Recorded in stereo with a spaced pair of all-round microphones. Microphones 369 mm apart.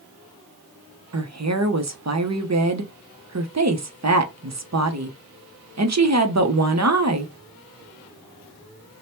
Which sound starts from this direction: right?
A woman speaking, at 1.1 s.